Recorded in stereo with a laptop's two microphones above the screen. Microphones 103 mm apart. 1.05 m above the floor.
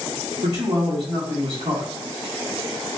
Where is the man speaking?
70° right (ahead or behind), 1.4 m.